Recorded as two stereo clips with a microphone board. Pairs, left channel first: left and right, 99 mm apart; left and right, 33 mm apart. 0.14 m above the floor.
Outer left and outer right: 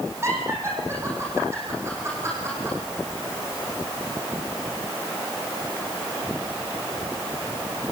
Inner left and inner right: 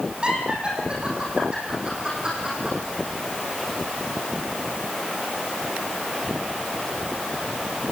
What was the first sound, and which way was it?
Laughter, 25° right (ahead or behind).